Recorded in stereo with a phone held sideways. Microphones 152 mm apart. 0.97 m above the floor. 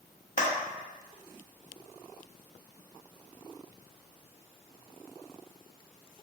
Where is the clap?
60° left (ahead or behind), 0.7 m.